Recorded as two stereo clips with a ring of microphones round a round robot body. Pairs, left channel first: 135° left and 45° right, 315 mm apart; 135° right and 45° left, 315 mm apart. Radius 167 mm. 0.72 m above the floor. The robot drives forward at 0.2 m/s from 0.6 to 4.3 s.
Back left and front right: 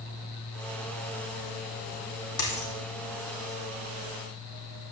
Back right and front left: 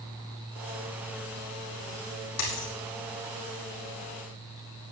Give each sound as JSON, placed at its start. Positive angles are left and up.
{"t": 2.4, "sound": "a dropped coin", "azimuth_deg": 180, "distance_m": 3.5}